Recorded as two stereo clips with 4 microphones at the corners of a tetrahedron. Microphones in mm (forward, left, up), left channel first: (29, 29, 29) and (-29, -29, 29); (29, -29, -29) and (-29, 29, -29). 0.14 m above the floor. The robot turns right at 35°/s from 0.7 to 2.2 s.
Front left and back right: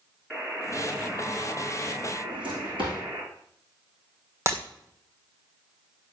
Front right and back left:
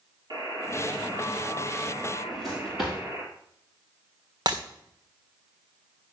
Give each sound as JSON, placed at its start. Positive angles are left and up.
{"t": 0.3, "sound": "a buzzer", "azimuth_deg": 140, "distance_m": 2.5}
{"t": 2.2, "sound": "a drawer", "azimuth_deg": -140, "distance_m": 5.0}
{"t": 4.5, "sound": "breaking glass", "azimuth_deg": 170, "distance_m": 1.5}